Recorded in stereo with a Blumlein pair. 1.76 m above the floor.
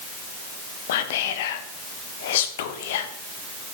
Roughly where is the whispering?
Ahead left.